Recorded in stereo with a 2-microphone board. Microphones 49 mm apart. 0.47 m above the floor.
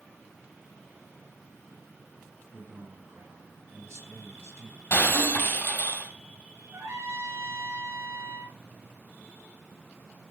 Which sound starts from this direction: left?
Breaking glass, at 4.9 s.